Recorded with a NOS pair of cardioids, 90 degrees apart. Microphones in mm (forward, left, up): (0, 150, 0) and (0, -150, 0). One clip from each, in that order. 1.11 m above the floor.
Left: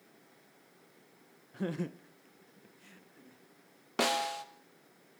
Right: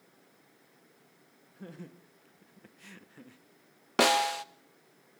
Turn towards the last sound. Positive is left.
turn(degrees=-35)